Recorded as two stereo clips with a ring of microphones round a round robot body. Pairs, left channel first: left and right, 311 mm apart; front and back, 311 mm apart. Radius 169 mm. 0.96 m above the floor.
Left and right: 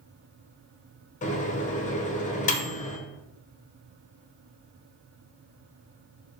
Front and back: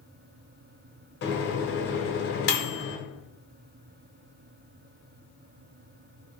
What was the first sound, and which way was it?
A microwave, 35° left.